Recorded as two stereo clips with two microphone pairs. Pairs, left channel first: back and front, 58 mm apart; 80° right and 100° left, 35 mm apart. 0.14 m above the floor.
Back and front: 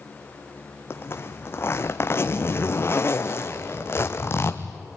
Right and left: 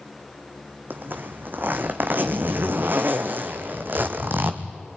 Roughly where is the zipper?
Behind left.